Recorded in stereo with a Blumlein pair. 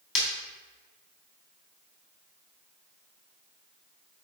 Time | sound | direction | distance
0.1 | breaking glass | 40° left | 3 m